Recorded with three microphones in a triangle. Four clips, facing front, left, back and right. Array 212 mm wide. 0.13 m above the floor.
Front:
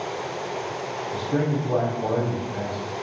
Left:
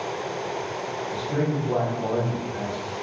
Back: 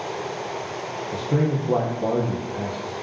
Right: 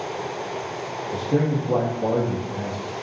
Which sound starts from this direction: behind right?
A man speaking, at 1.1 s.